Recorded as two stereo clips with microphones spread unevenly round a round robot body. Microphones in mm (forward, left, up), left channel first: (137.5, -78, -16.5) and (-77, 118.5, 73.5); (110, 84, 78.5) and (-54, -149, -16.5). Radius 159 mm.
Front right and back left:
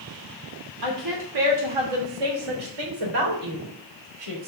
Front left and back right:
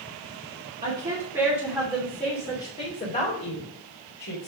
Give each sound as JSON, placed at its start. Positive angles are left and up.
{"t": 0.8, "sound": "a woman speaking", "azimuth_deg": 170, "distance_m": 1.7}